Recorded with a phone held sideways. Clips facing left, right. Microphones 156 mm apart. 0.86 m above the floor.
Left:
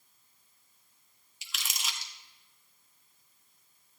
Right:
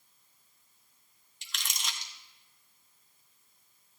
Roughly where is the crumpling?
Centre.